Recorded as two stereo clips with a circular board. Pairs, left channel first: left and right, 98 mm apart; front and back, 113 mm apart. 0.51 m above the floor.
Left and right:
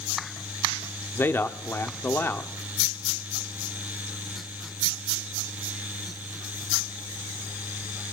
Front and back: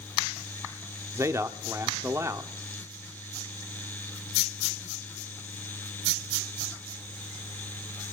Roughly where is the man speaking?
Behind left.